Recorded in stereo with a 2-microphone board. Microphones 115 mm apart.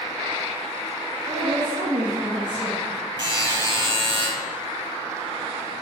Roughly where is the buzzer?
Right.